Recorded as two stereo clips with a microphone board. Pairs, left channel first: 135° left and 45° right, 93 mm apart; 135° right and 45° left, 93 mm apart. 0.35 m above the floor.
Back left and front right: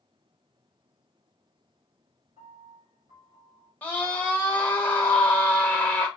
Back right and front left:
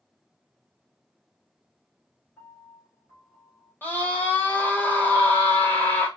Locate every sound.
2.4 s a piano: 55° right, 1.5 m
3.8 s a scream: 170° right, 0.9 m